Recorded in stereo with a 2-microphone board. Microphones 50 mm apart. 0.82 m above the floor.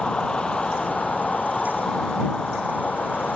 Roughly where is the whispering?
No whispering in this recording.